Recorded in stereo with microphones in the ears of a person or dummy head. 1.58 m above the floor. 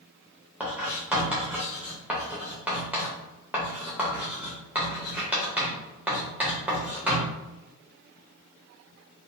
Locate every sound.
0.6 s writing: 5° right (ahead or behind), 0.6 m